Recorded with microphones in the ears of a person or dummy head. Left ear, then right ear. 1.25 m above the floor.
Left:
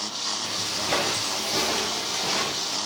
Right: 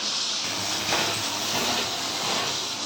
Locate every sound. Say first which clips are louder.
0.4 s footsteps: even; 15° right (ahead or behind), 1.4 m; by 2.8 s centre (ahead or behind), 3 m